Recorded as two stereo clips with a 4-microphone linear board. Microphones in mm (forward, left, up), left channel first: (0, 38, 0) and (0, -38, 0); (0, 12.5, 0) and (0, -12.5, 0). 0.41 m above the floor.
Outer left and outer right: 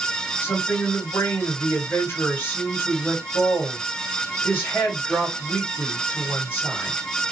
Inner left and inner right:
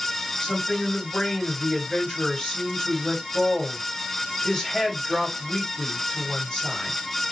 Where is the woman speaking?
35° left (ahead or behind), 1.9 m.